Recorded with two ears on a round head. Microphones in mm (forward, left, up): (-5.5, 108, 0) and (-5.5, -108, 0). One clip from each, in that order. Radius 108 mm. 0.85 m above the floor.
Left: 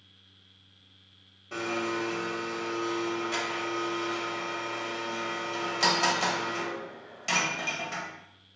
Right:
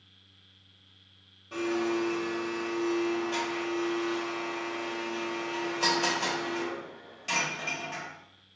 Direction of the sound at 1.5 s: 15° left (ahead or behind).